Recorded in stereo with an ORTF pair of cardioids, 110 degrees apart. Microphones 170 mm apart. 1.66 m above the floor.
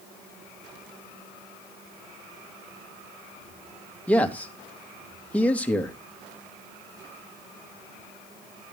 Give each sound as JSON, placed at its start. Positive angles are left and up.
{"t": 4.1, "sound": "a man speaking", "azimuth_deg": 10, "distance_m": 2.0}